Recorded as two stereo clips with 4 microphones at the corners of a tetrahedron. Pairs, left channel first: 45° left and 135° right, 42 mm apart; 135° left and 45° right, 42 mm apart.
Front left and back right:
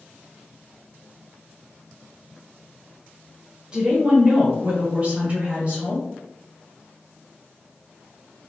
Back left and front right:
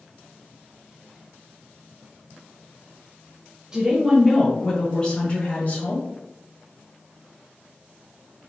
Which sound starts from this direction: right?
A woman speaking, at 3.7 s.